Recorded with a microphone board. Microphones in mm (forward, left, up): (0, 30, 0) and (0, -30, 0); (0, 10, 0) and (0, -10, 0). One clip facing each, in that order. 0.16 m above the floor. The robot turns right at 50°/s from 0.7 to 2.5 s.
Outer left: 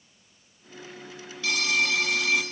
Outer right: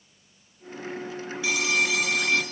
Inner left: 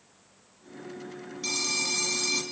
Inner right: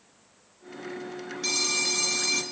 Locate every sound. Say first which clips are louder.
1.4 s a phone ringing: outer right 1 dB, inner right 2 dB; 10° right (ahead or behind), 0.9 m; by 2.4 s 5° left (ahead or behind), 0.9 m